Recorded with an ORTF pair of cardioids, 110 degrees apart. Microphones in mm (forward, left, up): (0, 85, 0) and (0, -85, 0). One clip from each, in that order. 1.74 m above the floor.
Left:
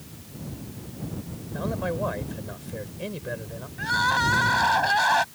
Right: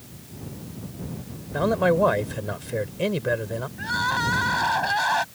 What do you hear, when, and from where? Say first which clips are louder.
1.5 s a man speaking: right 9 dB; 55° right
3.8 s crying: left 2 dB; 10° left